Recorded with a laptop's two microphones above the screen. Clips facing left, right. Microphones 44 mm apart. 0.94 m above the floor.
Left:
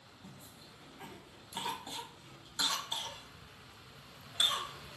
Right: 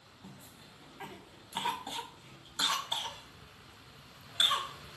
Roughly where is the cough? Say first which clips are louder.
Right 2 dB; right.